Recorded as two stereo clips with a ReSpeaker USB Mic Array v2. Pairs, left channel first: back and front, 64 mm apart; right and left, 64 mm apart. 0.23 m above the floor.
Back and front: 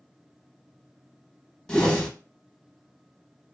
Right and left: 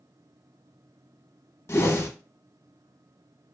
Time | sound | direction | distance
1.7 | a whoosh | 105° right | 0.7 m